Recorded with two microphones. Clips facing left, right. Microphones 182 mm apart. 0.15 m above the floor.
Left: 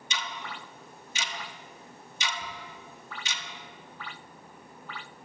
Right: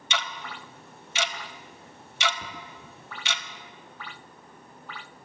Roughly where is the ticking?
Right.